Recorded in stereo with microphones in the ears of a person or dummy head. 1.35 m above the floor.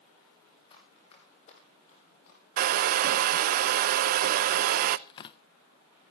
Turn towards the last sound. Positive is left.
turn(degrees=30)  # may be behind; listen again after turning